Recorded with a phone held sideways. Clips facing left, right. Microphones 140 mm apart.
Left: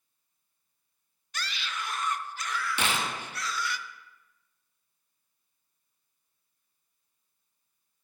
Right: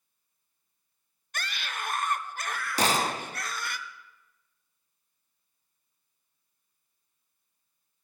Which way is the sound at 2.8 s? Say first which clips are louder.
Right 9 dB; 40° right (ahead or behind).